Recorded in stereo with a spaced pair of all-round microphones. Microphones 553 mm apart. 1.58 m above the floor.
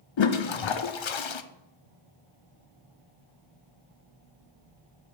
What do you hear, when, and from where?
0.2 s a toilet flushing: 60° left (ahead or behind), 0.5 m